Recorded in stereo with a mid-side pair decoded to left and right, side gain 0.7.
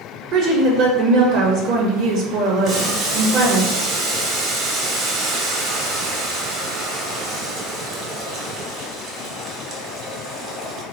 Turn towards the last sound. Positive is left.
turn(degrees=-45)